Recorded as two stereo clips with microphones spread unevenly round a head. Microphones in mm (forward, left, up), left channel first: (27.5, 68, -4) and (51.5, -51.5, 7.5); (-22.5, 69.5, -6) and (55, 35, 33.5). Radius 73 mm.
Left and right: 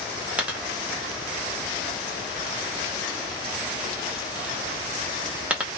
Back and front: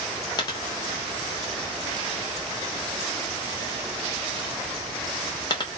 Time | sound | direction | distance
0.4 | a dropped coin | 140° right | 0.8 m